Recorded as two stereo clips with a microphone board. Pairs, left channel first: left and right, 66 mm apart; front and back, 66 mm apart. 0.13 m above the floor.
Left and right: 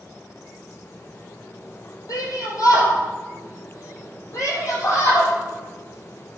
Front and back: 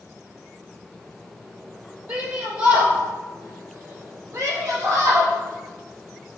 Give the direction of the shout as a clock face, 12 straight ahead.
8 o'clock.